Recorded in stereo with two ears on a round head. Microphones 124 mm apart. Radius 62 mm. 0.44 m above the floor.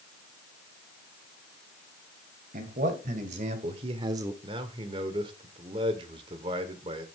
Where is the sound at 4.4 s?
40° right (ahead or behind), 1.3 m.